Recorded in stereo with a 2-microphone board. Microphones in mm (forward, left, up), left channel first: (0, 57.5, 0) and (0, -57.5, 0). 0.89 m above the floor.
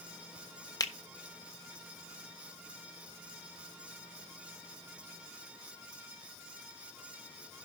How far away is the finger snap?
About 1.1 m.